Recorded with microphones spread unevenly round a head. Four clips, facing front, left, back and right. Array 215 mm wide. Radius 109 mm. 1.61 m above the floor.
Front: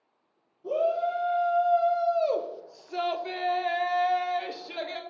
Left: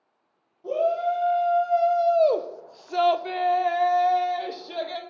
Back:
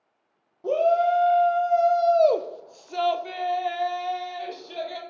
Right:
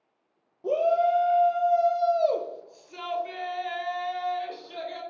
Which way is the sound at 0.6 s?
140° right.